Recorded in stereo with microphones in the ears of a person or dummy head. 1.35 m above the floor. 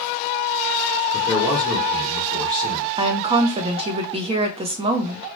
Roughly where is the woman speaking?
Right.